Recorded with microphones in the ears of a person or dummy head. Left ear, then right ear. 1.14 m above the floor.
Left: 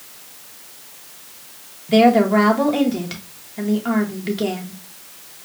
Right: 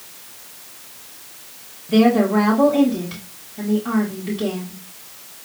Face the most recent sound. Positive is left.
turn(degrees=40)  # may be behind; listen again after turning